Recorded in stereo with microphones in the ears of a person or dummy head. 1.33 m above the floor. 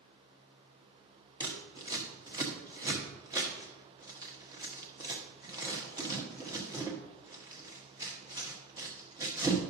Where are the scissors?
25° right (ahead or behind), 1.2 m.